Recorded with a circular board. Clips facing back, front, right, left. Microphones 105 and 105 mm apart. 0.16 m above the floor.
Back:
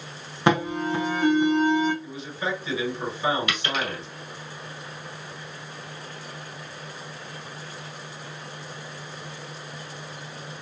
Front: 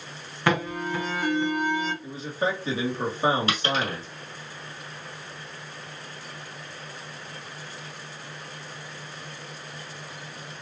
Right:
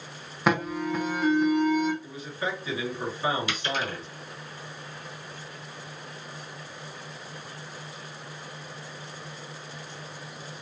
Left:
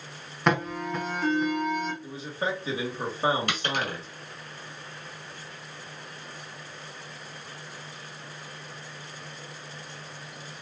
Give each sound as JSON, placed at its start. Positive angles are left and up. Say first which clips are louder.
{"t": 0.5, "sound": "an alarm", "louder": "back 3 dB, right 1 dB", "azimuth_deg": -170, "distance_m": 0.9}
{"t": 2.0, "sound": "a man speaking", "louder": "front 3 dB, left 2 dB", "azimuth_deg": 40, "distance_m": 2.5}
{"t": 3.5, "sound": "a dropped coin", "louder": "front 2 dB, left 1 dB", "azimuth_deg": 55, "distance_m": 1.7}